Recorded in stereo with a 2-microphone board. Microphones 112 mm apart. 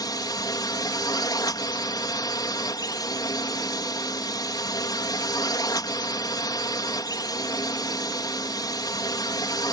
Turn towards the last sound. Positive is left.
turn(degrees=35)  # may be behind; listen again after turning